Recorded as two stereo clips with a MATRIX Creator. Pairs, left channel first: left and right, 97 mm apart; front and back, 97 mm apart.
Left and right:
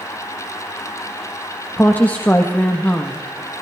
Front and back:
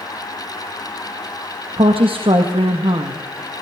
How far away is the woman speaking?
About 1.3 m.